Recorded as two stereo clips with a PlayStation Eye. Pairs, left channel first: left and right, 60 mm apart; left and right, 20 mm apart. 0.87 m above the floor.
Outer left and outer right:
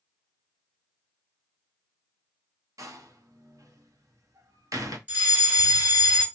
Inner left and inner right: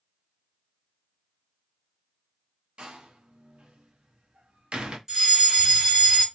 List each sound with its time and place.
2.8 s a door slam: 65° right (ahead or behind), 0.7 m
5.1 s a fire alarm: 25° right (ahead or behind), 1.9 m